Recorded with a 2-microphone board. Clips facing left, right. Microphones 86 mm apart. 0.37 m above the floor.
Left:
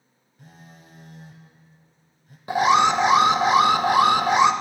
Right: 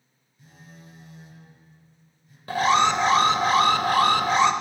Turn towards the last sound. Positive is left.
turn(degrees=15)  # may be behind; listen again after turning